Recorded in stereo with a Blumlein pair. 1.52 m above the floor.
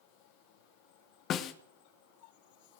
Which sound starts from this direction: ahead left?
A snare drum, at 1.3 s.